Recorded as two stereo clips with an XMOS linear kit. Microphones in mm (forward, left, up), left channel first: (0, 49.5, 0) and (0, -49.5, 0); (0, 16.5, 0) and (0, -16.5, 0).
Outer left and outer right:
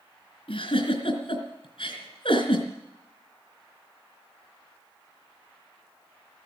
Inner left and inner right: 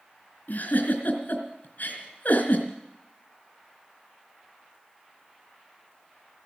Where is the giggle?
55° left (ahead or behind), 3.5 m.